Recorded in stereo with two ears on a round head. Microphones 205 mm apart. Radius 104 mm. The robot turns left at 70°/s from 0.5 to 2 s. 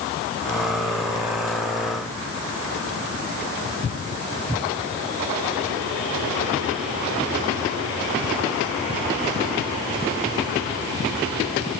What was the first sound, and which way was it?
Only background noise.